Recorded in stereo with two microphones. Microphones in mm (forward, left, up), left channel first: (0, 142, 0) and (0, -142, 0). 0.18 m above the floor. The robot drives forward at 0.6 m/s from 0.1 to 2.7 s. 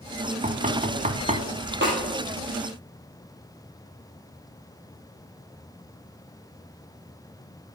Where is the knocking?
25° right (ahead or behind), 1.0 m.